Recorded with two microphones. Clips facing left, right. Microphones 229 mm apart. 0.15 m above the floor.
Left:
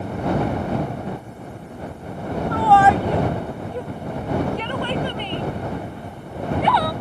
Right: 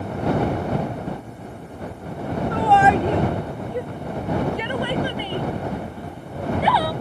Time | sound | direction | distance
2.5 | a shout | 25° right (ahead or behind) | ?